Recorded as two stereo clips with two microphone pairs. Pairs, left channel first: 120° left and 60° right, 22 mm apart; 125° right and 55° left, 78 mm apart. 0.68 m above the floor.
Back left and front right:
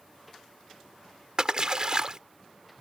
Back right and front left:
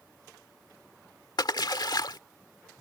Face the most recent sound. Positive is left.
turn(degrees=-110)